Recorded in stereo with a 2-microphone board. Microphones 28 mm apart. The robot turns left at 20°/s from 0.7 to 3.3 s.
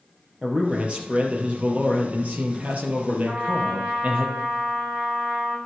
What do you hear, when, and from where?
0.4 s a man speaking: 45° right, 3 m; by 4.2 s 100° right, 3 m
3.2 s a trumpet: 65° right (ahead or behind), 3.5 m